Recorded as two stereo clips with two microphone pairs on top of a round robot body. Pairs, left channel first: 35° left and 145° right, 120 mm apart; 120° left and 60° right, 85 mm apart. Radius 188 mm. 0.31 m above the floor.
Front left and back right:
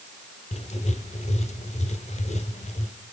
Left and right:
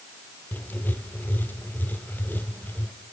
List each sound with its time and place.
0.5 s writing: 50° left, 1.6 m